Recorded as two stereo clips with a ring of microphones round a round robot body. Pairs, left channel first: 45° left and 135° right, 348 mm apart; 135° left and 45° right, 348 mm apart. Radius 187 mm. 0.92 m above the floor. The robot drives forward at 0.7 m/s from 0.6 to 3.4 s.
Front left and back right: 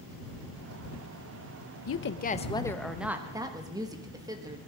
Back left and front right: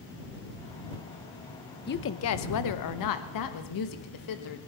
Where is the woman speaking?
80° left, 0.8 m; by 4.6 s 145° left, 1.3 m.